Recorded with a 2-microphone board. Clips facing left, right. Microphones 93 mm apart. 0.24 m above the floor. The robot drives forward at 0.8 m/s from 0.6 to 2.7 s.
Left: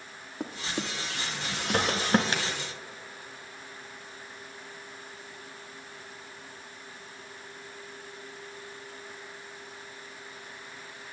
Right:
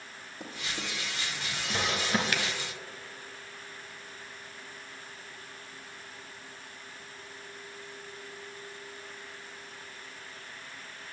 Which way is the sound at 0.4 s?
60° left (ahead or behind).